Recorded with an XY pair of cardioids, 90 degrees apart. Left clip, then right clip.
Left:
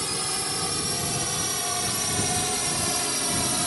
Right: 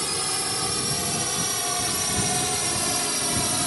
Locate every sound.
0.0 s a drone: 15° right; by 3.7 s 5° right